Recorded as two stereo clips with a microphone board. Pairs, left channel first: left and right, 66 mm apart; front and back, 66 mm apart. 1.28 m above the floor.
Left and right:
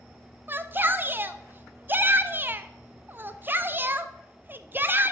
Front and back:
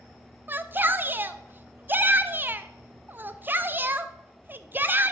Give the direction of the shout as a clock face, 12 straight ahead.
4 o'clock.